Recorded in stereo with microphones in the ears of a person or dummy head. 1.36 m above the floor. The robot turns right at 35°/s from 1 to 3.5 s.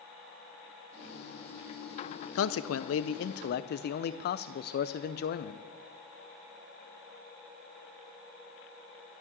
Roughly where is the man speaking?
Left.